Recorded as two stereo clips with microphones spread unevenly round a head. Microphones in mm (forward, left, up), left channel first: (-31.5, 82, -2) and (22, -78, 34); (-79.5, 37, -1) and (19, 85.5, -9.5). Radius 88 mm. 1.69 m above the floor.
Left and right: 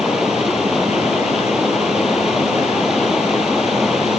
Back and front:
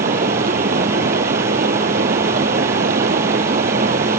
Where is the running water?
15° left.